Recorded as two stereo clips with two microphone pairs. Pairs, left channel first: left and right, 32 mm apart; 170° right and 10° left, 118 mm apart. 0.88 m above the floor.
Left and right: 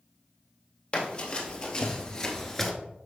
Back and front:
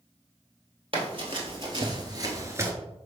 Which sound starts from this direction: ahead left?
Running footsteps, at 0.9 s.